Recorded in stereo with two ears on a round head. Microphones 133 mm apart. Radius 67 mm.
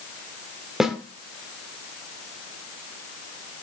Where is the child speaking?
I don't hear a child speaking.